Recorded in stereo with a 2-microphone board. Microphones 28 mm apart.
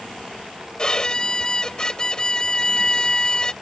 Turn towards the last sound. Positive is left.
turn(degrees=25)  # may be behind; listen again after turning